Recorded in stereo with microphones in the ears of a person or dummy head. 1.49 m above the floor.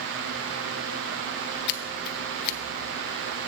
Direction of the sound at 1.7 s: 55° left (ahead or behind).